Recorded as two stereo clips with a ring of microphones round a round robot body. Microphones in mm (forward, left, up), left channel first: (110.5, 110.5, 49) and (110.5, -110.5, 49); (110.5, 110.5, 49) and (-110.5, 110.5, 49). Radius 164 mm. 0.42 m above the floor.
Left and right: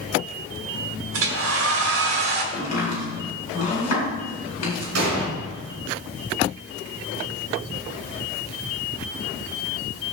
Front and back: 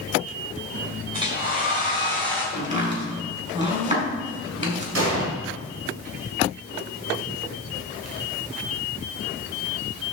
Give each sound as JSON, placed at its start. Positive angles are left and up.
{"t": 1.1, "sound": "a hair dryer", "azimuth_deg": -110, "distance_m": 1.2}
{"t": 2.5, "sound": "chopping", "azimuth_deg": 120, "distance_m": 3.5}
{"t": 5.0, "sound": "an explosion", "azimuth_deg": -135, "distance_m": 2.5}